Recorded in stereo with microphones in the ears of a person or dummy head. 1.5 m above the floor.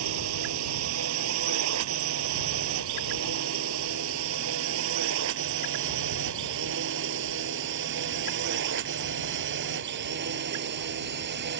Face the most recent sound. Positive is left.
turn(degrees=-60)  # may be behind; listen again after turning